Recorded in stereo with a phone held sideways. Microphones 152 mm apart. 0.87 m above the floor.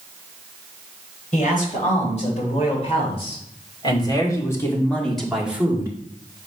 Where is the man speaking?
55° left (ahead or behind), 3.5 m; by 5.9 s 20° right (ahead or behind), 1.5 m.